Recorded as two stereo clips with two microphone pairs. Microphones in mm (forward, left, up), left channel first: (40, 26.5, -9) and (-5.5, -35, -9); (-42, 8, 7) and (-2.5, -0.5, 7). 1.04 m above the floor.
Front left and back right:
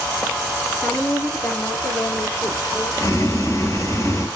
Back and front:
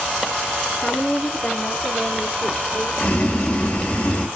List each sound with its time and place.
0.8 s a woman speaking: 115° left, 3 m; by 3.5 s 110° left, 5 m
3.0 s boiling: 105° left, 4 m